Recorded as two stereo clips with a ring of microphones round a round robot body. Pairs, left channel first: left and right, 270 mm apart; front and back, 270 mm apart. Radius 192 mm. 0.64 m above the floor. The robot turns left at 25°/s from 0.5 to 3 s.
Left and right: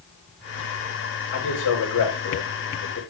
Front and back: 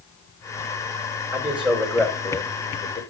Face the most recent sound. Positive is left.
turn(degrees=60)